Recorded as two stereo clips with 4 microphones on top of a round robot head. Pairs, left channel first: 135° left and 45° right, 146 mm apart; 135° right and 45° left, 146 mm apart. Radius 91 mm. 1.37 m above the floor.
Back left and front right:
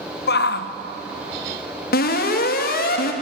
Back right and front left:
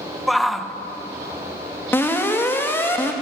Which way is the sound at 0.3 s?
135° left.